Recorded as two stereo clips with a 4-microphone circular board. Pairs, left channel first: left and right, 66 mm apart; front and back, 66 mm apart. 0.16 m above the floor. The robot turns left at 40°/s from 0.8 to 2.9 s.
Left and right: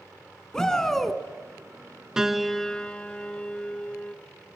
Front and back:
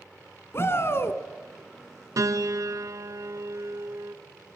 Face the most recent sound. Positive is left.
turn(degrees=160)